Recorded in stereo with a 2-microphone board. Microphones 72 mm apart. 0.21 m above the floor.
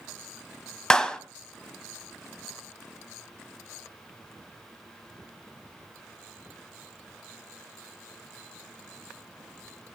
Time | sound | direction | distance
0.9 | a clap | 10° left (ahead or behind) | 1.0 m